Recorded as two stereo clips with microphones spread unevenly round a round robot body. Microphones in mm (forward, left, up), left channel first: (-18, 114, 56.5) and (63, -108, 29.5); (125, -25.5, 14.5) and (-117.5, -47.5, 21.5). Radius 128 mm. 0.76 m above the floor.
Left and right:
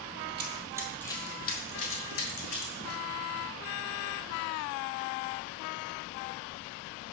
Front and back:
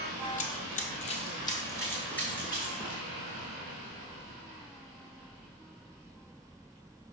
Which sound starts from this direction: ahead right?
Running footsteps, at 0.4 s.